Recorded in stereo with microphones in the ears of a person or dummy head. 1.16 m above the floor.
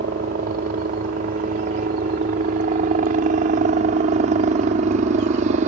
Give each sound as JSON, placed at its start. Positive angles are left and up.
{"t": 0.0, "sound": "a helicopter", "side_deg": -40}